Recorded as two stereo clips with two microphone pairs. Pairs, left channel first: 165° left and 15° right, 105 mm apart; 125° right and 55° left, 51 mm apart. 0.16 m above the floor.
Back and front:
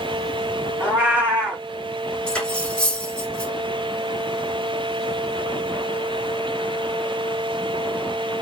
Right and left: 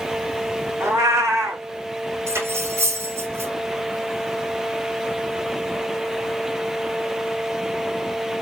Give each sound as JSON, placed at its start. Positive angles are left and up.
{"t": 0.8, "sound": "a cat meowing", "azimuth_deg": 60, "distance_m": 3.5}
{"t": 2.3, "sound": "cutlery clinking", "azimuth_deg": 85, "distance_m": 4.0}